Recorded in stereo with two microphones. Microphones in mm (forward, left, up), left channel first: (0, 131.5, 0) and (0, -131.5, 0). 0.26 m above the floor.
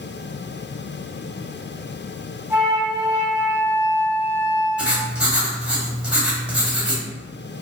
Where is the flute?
5° right (ahead or behind), 1.4 m.